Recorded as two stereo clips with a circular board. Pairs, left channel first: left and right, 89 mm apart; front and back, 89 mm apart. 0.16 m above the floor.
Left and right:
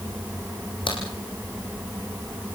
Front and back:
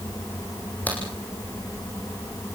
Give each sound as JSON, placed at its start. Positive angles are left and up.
{"t": 0.9, "sound": "a crack", "azimuth_deg": 70, "distance_m": 6.5}